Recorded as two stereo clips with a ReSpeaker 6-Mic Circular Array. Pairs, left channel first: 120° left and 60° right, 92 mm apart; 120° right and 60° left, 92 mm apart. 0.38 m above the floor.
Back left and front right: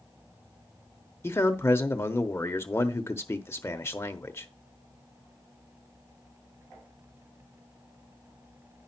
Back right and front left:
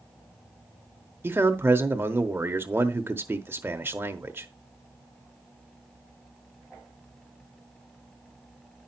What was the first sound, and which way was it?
A man speaking, 95° left.